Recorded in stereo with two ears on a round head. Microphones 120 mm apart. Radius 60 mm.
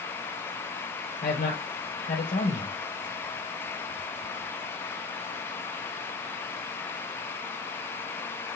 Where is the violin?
I don't hear a violin.